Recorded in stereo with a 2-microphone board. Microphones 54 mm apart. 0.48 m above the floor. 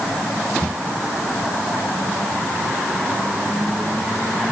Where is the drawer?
No drawer in this recording.